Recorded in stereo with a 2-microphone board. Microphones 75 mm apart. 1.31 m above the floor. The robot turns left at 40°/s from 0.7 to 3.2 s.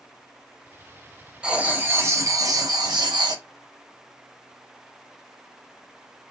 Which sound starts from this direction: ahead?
Writing, at 1.4 s.